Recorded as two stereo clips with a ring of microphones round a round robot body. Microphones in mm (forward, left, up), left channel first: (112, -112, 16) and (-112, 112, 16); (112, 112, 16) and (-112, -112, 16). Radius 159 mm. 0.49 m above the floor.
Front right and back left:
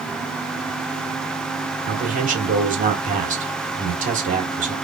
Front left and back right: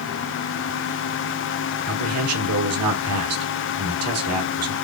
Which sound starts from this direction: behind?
A man speaking, at 1.9 s.